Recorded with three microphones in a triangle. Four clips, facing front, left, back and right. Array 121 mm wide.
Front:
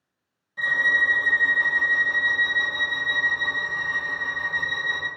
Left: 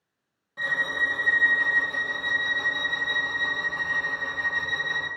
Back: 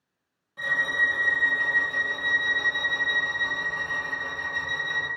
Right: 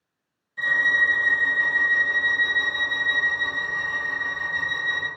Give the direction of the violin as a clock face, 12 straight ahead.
8 o'clock.